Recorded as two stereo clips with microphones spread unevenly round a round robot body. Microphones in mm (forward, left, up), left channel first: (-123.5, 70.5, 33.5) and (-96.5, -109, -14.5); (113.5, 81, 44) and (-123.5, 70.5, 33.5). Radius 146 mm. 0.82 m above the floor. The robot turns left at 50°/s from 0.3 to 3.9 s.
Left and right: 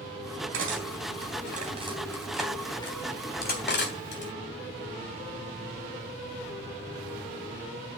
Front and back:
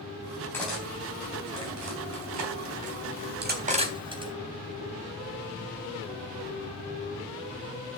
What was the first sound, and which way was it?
Cutlery clinking, 80° right.